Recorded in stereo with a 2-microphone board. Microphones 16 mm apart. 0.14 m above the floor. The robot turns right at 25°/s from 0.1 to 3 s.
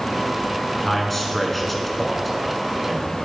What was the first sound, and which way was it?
A man speaking, 15° left (ahead or behind).